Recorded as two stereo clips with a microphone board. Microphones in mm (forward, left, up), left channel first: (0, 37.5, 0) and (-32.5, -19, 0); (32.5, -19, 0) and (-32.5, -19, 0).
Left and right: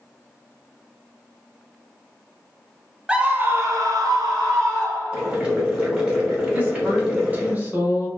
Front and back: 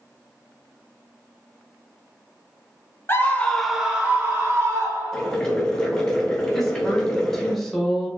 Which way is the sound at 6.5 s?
80° right.